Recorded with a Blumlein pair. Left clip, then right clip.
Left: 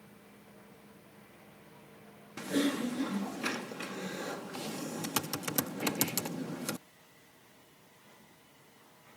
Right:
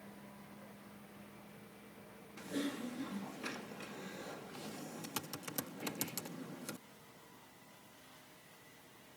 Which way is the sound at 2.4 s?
65° left.